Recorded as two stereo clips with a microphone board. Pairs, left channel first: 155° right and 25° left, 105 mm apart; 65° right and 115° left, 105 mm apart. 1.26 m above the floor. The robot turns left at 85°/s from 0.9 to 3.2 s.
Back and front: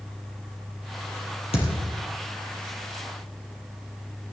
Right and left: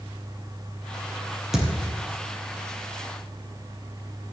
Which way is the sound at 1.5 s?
160° right.